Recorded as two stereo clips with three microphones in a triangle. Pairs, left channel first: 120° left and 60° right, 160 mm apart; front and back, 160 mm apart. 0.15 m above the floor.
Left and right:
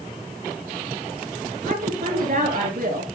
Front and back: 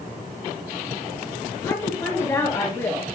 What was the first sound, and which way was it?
A woman speaking, 70° right.